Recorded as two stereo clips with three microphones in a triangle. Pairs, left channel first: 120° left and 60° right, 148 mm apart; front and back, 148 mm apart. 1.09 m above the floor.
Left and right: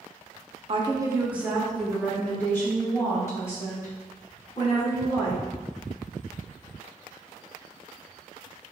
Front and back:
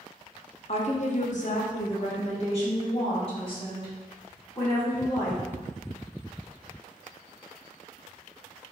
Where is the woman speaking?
25° right, 0.8 m; by 5.4 s 55° left, 4 m.